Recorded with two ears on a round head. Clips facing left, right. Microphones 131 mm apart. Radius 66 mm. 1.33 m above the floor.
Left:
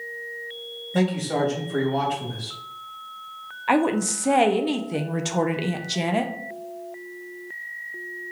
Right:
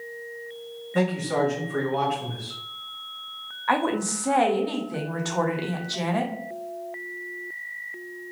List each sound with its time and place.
0.9 s a man speaking: 35° left (ahead or behind), 1.6 m
3.7 s a woman speaking: 20° left (ahead or behind), 0.5 m